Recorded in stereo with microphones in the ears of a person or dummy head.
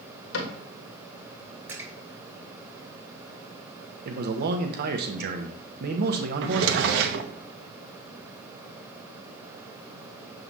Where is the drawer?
70° right (ahead or behind), 0.8 m.